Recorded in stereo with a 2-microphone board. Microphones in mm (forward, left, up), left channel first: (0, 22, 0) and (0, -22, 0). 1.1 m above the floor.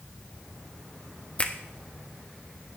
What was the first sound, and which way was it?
A finger snap, 30° left (ahead or behind).